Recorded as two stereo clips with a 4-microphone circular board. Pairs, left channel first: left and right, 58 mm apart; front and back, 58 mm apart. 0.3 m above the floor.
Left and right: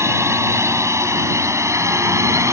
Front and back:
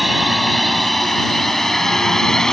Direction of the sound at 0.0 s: 90° right.